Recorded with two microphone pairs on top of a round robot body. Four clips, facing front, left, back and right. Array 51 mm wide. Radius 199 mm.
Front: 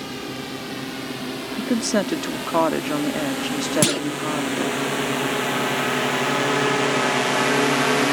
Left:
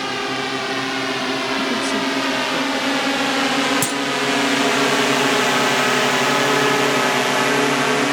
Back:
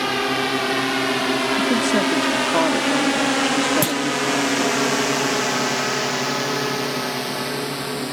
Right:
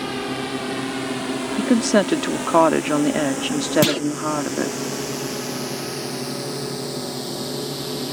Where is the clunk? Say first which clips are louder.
Right 2 dB, even; 50° right.